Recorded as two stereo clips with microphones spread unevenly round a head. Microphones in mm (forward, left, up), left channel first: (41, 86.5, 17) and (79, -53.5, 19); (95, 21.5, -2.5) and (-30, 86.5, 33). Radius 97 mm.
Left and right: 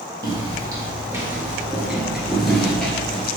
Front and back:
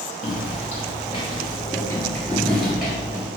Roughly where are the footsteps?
Ahead right.